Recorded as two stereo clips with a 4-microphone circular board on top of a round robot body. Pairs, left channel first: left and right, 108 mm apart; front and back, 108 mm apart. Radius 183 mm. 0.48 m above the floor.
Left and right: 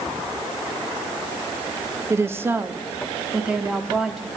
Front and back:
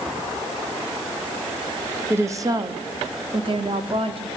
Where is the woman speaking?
130° right, 1.1 m; by 4.3 s 175° right, 1.9 m.